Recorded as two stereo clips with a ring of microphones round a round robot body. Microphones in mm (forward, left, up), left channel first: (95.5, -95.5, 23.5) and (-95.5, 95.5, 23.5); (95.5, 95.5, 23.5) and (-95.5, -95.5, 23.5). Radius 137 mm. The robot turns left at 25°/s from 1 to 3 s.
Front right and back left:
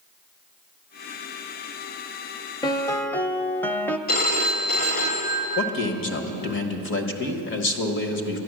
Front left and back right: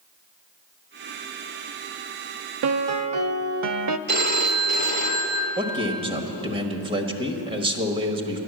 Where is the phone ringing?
90° right, 1.4 m.